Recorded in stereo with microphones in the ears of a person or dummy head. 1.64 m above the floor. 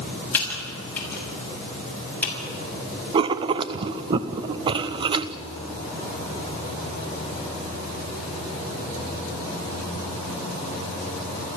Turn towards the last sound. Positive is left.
turn(degrees=-25)  # may be behind; listen again after turning